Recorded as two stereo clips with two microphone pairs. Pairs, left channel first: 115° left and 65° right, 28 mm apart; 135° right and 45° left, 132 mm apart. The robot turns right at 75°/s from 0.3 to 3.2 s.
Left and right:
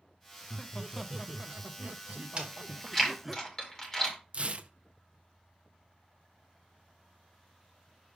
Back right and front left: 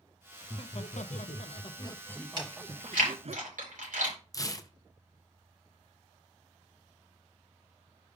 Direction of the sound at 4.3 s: 80° right.